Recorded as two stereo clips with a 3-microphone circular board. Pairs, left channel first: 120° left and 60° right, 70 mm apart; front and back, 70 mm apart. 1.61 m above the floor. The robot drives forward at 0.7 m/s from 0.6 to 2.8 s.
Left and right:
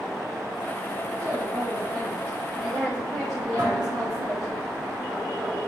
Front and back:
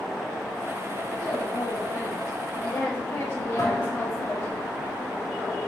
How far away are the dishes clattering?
About 4 m.